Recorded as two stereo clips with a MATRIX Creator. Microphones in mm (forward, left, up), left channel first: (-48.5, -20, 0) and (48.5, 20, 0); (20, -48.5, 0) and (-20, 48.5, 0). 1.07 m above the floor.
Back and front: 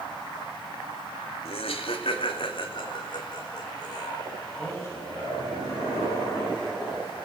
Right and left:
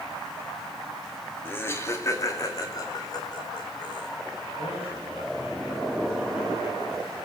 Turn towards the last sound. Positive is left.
turn(degrees=-90)